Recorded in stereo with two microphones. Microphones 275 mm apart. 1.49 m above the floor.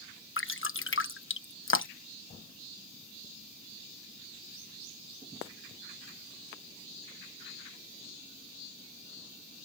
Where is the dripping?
50° left (ahead or behind).